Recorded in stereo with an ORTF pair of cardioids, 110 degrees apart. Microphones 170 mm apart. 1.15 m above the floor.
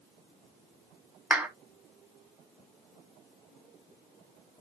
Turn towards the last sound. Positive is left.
turn(degrees=-10)